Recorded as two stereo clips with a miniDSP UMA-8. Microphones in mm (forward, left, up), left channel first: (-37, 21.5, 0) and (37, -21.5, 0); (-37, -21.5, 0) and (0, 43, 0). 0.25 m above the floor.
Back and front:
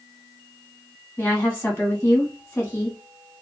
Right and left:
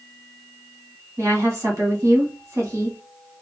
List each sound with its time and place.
1.2 s a woman speaking: 90° left, 1.5 m